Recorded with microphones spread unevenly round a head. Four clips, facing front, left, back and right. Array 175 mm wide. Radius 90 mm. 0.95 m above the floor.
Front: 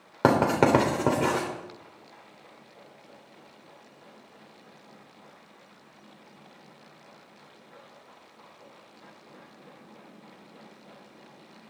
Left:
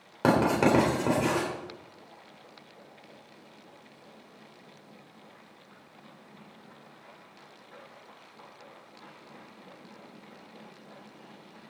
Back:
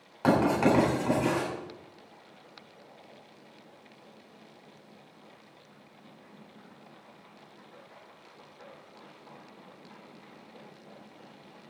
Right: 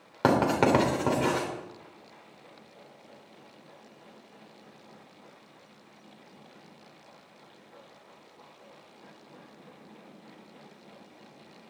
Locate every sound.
0.2 s writing: straight ahead, 3.5 m